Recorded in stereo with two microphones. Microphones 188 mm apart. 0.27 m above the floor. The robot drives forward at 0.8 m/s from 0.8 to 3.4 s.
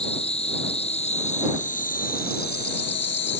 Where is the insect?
35° left (ahead or behind); by 3.4 s 85° left.